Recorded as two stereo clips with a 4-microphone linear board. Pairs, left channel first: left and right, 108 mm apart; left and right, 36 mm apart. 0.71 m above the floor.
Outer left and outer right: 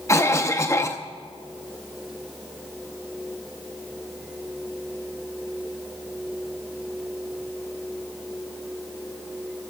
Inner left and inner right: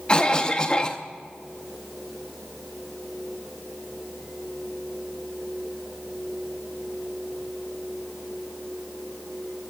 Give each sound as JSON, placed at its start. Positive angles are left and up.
{"t": 0.1, "sound": "a cough", "side_deg": 25, "distance_m": 0.6}